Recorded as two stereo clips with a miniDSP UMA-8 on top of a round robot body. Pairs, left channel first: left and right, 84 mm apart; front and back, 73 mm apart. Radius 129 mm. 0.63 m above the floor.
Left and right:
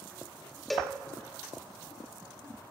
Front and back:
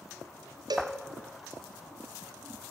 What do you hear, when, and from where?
0.7 s a cowbell: straight behind, 1.3 m